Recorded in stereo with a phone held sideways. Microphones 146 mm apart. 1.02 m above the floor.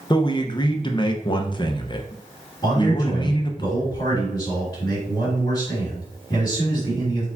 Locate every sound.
0.1 s a man speaking: 35° left (ahead or behind), 0.6 m
2.6 s a man speaking: 30° left (ahead or behind), 2.5 m